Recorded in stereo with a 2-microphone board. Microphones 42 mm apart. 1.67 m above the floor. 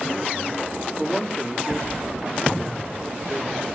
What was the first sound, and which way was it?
A man speaking, 5° left (ahead or behind).